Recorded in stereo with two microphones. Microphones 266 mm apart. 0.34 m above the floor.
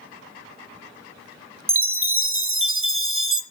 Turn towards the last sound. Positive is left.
turn(degrees=-50)  # may be behind; listen again after turning